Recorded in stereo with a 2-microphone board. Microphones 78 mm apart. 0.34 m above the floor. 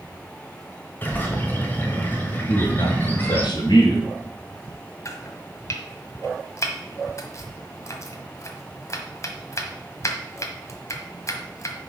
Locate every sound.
1.0 s a bird: 25° left (ahead or behind), 1.4 m
2.5 s a man speaking: 60° left (ahead or behind), 2 m
5.0 s chopping: 40° left (ahead or behind), 1.3 m